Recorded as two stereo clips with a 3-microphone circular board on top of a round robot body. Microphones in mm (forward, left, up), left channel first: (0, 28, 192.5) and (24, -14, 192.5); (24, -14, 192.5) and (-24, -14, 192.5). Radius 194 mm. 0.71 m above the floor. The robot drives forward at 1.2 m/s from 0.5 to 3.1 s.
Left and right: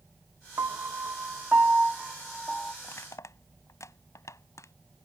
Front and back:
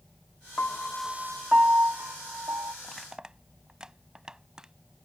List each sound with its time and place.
0.6 s a piano: 50° right; by 2.7 s 155° right
2.8 s crushing: 75° left; by 4.7 s 100° left